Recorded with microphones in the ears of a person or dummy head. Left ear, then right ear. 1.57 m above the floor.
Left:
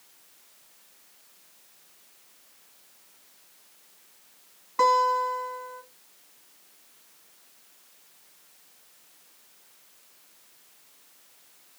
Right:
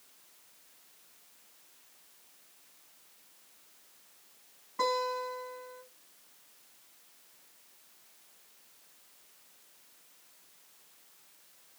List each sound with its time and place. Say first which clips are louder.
4.8 s a guitar: left 10 dB; 35° left (ahead or behind), 2 m